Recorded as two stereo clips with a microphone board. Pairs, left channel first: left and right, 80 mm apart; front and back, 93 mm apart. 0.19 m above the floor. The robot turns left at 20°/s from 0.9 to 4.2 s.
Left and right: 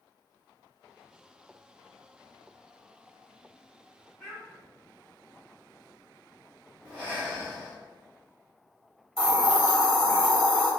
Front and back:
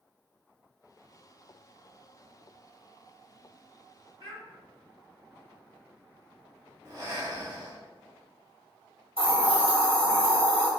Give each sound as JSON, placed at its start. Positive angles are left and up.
{"t": 4.2, "sound": "a child speaking", "azimuth_deg": 165, "distance_m": 1.6}
{"t": 6.8, "sound": "breathing", "azimuth_deg": -150, "distance_m": 1.0}
{"t": 9.2, "sound": "a hiss", "azimuth_deg": -175, "distance_m": 1.6}